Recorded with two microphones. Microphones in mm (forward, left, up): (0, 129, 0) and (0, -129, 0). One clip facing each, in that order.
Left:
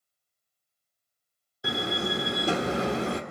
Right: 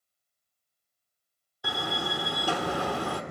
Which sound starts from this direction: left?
A door slam, at 1.6 s.